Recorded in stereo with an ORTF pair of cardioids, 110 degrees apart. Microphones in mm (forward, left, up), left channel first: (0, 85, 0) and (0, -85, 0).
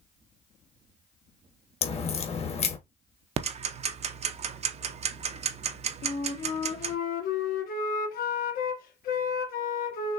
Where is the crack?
35° left, 1.4 m.